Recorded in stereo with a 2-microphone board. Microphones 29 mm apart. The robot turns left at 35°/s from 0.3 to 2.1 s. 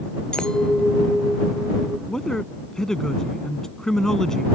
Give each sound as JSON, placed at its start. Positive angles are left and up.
{"t": 0.3, "sound": "a clink", "azimuth_deg": 35}
{"t": 2.1, "sound": "a man speaking", "side_deg": 15}